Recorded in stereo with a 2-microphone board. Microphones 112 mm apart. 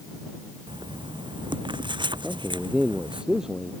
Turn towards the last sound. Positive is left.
turn(degrees=-5)  # may be behind; listen again after turning